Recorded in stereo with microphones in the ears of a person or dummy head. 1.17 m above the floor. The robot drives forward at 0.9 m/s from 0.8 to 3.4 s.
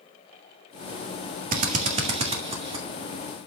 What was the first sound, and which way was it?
A drill, 45° right (ahead or behind).